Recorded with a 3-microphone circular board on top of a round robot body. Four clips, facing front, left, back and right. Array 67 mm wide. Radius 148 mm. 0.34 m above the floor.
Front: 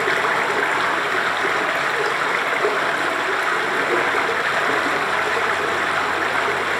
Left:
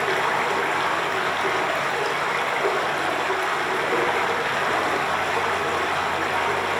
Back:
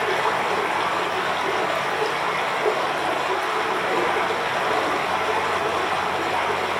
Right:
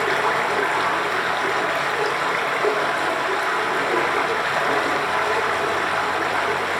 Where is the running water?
10° right, 6 m.